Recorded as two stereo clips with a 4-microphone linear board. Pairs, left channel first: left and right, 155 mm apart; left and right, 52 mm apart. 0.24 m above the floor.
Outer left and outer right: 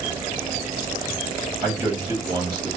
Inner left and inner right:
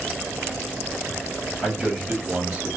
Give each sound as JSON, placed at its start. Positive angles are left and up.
{"t": 1.6, "sound": "a man speaking", "side_deg": -15, "distance_m": 1.1}